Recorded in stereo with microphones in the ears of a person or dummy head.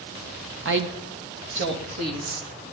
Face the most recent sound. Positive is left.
turn(degrees=-70)  # may be behind; listen again after turning